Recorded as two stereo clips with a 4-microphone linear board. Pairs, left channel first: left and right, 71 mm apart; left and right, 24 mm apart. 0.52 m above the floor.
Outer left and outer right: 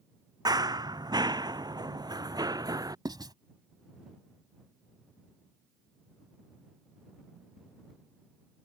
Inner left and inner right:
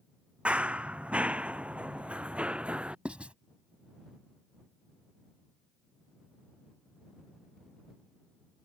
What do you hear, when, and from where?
0.5 s running footsteps: 70° right (ahead or behind); by 3.0 s 60° right (ahead or behind)
3.0 s writing: 75° right (ahead or behind)